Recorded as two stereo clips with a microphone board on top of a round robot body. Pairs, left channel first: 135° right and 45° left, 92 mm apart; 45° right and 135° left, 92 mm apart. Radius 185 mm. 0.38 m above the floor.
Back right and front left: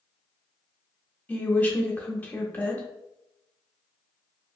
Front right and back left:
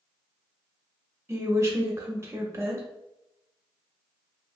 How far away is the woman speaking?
About 0.9 m.